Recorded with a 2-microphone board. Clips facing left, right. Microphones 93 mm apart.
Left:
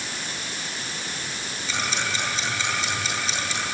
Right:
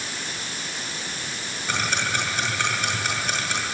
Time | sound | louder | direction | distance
1.7 | ticking | right 2 dB | 55° right (ahead or behind) | 8.5 m